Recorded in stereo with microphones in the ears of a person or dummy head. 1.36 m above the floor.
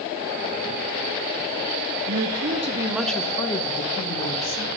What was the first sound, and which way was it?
A woman speaking, 75° right (ahead or behind).